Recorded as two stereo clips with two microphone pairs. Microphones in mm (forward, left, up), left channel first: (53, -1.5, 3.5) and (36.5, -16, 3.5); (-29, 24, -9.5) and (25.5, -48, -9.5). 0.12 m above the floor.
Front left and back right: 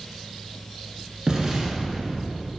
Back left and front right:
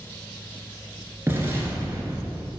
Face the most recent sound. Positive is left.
turn(degrees=-95)